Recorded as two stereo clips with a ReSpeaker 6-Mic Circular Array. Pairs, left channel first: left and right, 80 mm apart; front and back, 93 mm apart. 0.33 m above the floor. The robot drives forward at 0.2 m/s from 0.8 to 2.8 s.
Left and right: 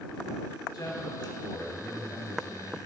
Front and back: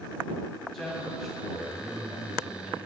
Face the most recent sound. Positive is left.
turn(degrees=100)